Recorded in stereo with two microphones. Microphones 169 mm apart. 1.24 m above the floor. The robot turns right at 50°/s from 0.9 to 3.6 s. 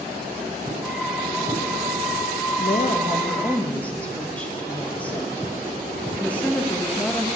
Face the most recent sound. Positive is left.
turn(degrees=170)